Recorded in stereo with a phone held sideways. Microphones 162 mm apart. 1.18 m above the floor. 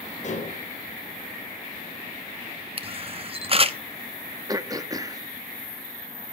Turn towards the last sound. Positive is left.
turn(degrees=-25)  # may be behind; listen again after turning